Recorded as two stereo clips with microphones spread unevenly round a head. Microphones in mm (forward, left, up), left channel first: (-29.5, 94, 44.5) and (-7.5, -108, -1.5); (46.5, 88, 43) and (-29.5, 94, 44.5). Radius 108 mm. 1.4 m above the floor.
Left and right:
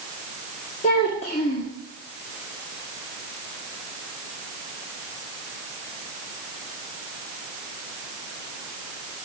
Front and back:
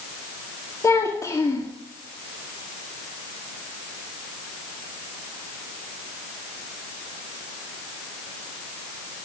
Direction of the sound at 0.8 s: 40° left.